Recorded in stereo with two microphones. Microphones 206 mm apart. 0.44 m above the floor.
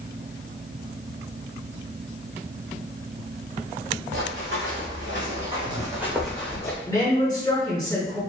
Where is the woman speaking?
20° left (ahead or behind), 1.5 m.